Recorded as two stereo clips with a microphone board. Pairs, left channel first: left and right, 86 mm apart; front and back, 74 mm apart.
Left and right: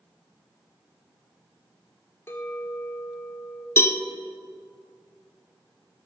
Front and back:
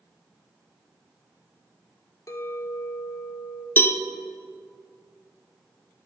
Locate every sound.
2.3 s a clink: 35° left, 1.3 m
3.8 s a cowbell: 45° left, 0.6 m